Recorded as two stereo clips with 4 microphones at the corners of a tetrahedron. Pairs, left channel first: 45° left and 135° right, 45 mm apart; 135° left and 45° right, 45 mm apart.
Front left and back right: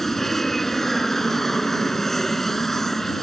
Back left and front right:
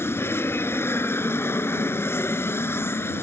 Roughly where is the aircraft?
Behind left.